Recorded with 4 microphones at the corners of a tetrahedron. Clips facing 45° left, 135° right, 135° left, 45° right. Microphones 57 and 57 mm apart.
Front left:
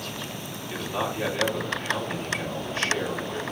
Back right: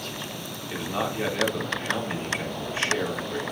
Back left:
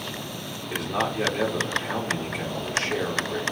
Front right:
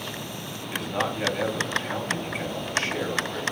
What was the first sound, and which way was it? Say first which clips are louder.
A man speaking: even, back left 1 dB; 150° left.